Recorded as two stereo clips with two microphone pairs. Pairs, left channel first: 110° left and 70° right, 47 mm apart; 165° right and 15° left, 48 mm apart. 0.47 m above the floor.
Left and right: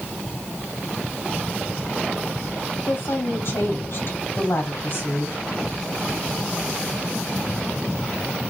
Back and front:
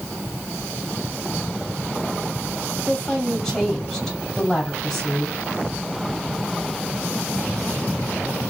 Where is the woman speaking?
100° left, 2 m.